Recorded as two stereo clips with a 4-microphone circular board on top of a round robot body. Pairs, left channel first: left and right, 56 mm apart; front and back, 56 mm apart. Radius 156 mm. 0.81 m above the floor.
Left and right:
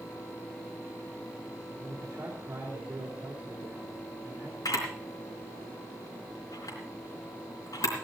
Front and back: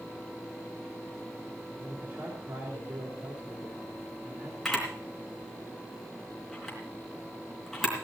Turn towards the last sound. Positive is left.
turn(degrees=90)